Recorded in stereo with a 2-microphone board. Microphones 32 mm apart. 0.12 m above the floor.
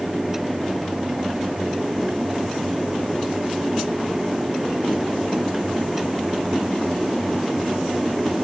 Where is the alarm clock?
No alarm clock in this recording.